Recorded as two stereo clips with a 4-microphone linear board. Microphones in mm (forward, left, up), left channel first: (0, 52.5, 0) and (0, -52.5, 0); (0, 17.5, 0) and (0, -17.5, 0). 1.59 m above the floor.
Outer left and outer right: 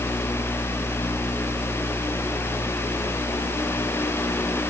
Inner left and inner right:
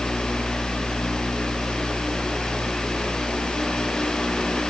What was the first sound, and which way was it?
Only background noise.